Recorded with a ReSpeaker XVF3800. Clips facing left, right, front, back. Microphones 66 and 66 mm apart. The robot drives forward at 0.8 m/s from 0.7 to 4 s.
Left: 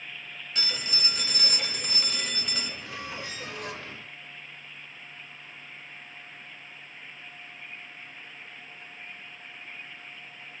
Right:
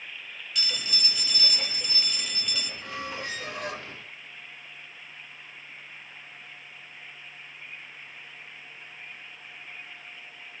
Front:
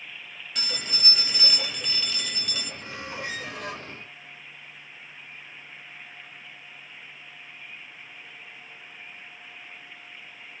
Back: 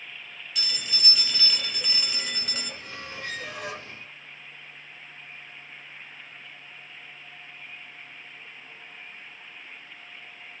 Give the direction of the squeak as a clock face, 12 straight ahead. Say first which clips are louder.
Right 3 dB, front 3 dB; 2 o'clock.